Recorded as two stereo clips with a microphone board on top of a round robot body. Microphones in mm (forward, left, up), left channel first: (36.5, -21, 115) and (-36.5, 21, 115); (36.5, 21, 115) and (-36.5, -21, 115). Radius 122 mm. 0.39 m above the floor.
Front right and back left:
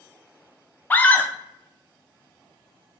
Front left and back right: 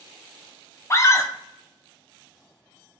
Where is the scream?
20° left, 0.8 m.